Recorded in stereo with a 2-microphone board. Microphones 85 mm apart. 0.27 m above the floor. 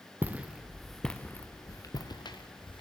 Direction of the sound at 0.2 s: 20° right (ahead or behind).